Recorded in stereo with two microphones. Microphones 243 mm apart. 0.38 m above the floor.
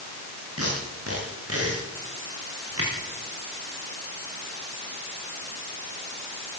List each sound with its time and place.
0.6 s tape being pulled: 70° right (ahead or behind), 9.5 m